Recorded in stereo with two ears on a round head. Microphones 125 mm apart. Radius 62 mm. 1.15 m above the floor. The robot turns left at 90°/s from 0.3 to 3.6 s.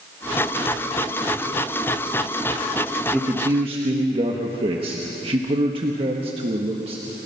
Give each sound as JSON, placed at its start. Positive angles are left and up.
{"t": 3.1, "sound": "a man speaking", "azimuth_deg": 5, "distance_m": 1.5}